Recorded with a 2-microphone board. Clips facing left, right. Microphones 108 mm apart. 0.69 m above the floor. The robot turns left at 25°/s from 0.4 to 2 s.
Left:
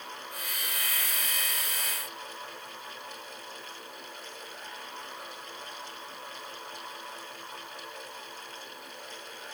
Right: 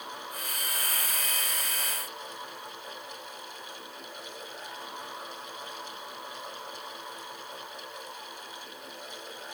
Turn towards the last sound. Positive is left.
No sound to turn to.